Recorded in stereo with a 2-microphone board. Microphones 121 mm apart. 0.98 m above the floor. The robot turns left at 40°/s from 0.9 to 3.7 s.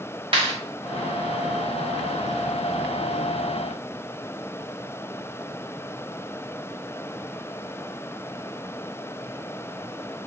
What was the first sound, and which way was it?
A clap, 50° right (ahead or behind).